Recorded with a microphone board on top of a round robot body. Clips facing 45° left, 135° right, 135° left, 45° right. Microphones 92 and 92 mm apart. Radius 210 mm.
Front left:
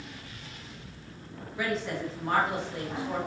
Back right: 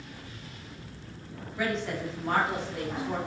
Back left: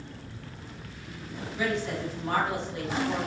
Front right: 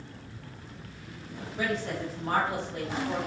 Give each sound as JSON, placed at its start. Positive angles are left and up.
{"t": 1.6, "sound": "a woman speaking", "azimuth_deg": -40, "distance_m": 1.2}